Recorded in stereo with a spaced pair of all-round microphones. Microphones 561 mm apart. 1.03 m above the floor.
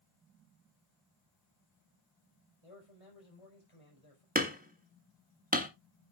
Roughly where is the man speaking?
Left.